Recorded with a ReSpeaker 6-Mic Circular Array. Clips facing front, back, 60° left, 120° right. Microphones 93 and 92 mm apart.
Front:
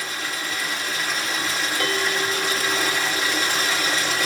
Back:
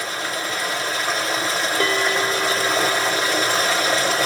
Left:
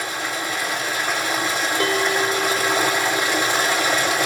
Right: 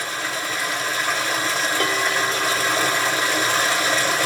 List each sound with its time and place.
0.0 s running water: 135° left, 1.7 m
1.8 s a bell: 130° left, 1.6 m